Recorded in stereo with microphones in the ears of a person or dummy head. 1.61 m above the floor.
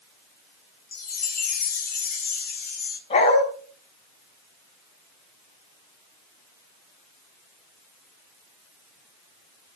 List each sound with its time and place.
0.9 s a chime: 50° left (ahead or behind), 0.8 m
3.1 s a dog barking: 35° left (ahead or behind), 4 m